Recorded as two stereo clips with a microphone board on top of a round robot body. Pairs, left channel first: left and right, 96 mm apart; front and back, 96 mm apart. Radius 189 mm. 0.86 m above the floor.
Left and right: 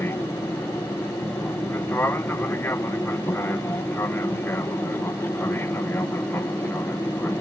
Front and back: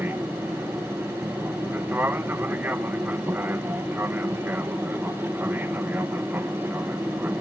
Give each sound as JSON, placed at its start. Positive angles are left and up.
{"t": 0.0, "sound": "an aircraft", "azimuth_deg": 130}